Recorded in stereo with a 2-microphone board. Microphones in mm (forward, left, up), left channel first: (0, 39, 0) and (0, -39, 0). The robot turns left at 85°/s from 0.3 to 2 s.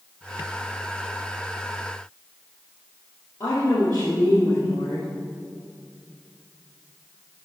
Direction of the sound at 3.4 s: 55° left (ahead or behind).